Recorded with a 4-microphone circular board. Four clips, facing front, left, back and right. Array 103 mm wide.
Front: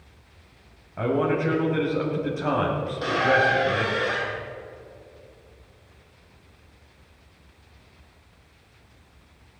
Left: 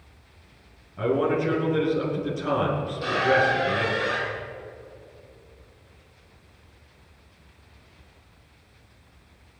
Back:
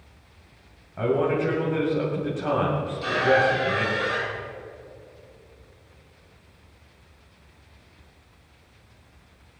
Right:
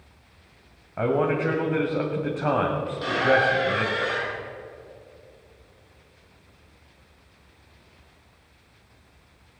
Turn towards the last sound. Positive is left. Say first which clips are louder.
# right 1 dB, back 1 dB
turn(degrees=-30)